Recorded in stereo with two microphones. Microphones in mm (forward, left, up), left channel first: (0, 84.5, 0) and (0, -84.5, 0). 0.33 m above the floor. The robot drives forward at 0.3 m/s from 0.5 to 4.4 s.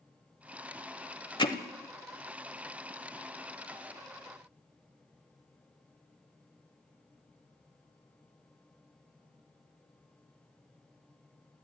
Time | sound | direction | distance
1.4 | hammering | 30° left (ahead or behind) | 1.0 m